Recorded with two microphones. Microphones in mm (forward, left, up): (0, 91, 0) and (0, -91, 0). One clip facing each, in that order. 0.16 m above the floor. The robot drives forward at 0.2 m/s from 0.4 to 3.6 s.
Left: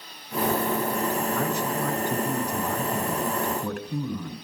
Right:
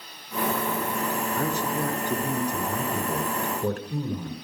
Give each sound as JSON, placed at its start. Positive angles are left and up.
{"t": 1.4, "sound": "a man speaking", "side_deg": -35, "distance_m": 1.8}